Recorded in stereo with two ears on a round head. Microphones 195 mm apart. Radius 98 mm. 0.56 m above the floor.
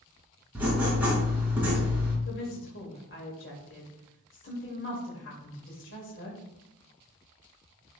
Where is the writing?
10° right (ahead or behind), 3 m.